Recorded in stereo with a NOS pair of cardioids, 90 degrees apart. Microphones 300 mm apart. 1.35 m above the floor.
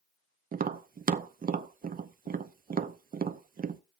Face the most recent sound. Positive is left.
turn(degrees=-30)